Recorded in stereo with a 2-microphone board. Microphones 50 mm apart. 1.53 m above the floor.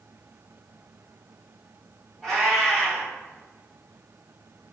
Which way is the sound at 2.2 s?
5° right (ahead or behind).